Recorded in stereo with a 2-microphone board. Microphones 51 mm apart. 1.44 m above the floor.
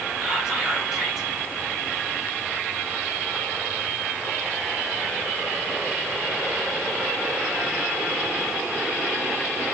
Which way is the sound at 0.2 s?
15° right (ahead or behind).